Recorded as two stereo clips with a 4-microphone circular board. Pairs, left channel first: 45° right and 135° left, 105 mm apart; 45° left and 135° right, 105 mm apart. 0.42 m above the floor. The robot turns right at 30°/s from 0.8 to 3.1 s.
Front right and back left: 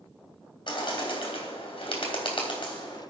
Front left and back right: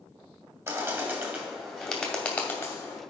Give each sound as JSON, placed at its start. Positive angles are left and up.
{"t": 0.7, "sound": "a bird", "azimuth_deg": -80, "distance_m": 2.5}